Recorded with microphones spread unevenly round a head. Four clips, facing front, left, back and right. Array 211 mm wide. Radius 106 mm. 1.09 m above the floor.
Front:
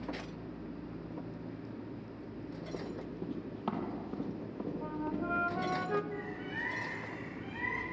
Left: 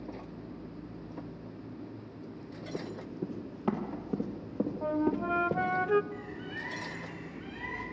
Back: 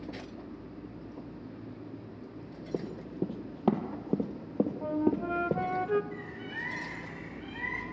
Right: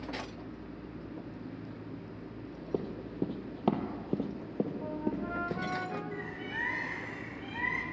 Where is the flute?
140° left, 0.6 m.